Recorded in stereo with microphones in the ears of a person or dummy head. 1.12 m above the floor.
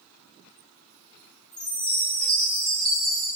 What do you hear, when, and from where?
1.5 s a chime: 5° left (ahead or behind), 0.6 m